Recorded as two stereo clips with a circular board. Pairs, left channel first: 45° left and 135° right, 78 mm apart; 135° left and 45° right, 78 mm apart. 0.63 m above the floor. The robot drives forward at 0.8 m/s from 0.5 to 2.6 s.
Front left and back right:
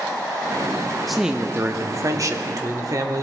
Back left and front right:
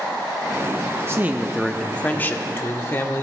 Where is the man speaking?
40° right, 0.6 m; by 3.2 s 170° right, 1.1 m.